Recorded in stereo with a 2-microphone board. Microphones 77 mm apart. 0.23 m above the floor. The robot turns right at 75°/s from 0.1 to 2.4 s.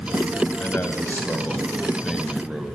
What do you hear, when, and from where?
0.6 s a man speaking: 25° left (ahead or behind), 1.0 m; by 2.7 s 10° right (ahead or behind), 1.0 m